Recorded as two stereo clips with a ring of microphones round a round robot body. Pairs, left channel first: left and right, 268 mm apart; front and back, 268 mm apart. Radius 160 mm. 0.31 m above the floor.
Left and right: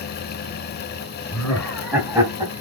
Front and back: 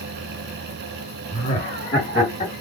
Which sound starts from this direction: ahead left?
Laughter, at 1.3 s.